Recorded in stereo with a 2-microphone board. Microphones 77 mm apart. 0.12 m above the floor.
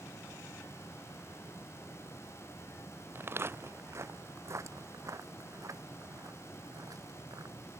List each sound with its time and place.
3.1 s footsteps: 30° right (ahead or behind); by 7.5 s 50° right (ahead or behind)